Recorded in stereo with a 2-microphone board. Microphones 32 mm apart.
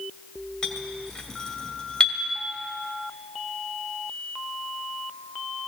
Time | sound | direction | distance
0.6 | a clink | 30° left (ahead or behind) | 2 m